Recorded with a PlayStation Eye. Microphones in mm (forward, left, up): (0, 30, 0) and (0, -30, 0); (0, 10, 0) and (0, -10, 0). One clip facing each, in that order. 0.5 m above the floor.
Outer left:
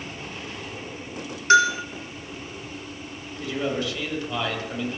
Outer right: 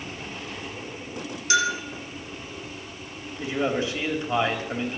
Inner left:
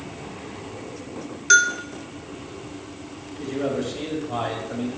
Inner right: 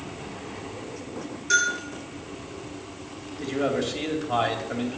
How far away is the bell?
About 2.5 m.